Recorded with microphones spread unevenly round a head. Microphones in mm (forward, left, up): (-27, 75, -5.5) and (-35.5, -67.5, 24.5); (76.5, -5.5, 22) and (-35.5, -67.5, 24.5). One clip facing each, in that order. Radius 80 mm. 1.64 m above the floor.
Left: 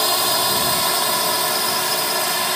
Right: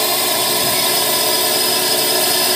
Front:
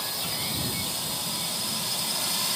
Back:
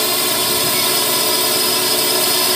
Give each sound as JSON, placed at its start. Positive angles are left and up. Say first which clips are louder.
{"t": 0.0, "sound": "a drone", "louder": "right 2 dB, back 16 dB", "azimuth_deg": -160}